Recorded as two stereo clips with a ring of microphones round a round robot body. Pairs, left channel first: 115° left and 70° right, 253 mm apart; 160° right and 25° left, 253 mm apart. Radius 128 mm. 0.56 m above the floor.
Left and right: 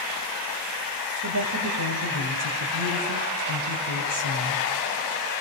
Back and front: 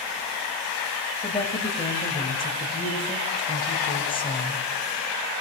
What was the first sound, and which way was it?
A woman speaking, 90° right.